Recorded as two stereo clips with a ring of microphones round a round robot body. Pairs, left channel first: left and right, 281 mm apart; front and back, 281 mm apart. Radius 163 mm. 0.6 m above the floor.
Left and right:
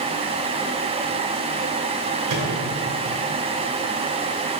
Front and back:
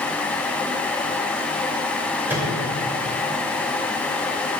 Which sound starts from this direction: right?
A microwave, at 2.3 s.